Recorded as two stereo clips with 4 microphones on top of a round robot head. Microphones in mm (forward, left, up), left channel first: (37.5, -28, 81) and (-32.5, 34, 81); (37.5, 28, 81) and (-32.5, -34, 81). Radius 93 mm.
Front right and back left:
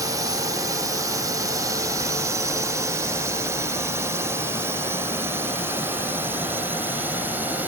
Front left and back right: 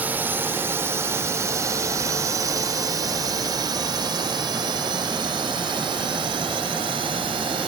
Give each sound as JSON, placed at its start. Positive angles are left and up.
{"t": 0.0, "sound": "a drone", "azimuth_deg": 160}